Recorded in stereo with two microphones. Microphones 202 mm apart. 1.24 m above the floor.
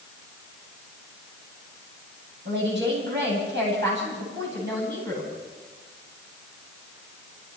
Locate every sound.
2.5 s a woman speaking: 60° right (ahead or behind), 9 m